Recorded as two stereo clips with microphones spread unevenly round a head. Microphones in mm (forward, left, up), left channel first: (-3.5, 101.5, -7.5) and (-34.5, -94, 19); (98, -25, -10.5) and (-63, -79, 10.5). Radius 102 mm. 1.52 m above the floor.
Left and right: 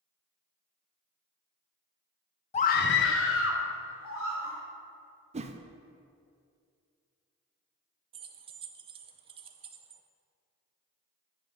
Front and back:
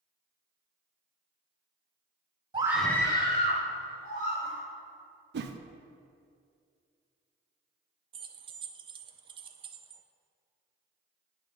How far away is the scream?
About 0.5 m.